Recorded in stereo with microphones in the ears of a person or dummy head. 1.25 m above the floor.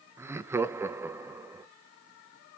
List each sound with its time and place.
0.2 s laughter: 10° right (ahead or behind), 0.5 m